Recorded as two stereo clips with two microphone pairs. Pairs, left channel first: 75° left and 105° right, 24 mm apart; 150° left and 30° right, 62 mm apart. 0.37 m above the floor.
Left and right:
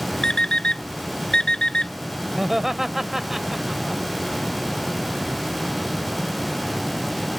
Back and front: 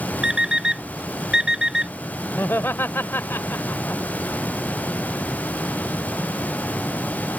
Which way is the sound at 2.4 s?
Straight behind.